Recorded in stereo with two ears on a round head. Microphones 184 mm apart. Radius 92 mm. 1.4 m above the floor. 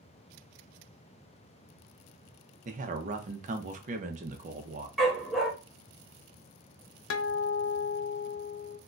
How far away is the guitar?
About 0.5 m.